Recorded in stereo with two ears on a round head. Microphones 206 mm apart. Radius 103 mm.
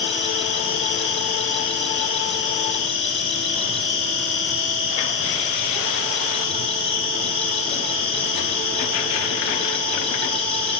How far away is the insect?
About 1.4 m.